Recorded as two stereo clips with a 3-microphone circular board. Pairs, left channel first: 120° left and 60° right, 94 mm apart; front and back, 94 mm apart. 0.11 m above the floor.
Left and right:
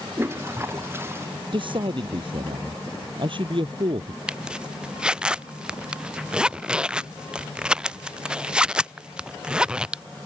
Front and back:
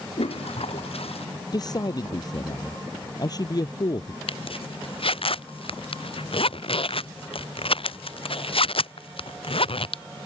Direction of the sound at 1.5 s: 40° right.